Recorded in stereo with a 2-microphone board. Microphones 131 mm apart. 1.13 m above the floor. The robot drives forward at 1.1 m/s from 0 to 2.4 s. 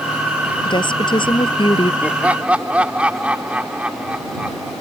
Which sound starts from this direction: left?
A woman speaking, at 0.7 s.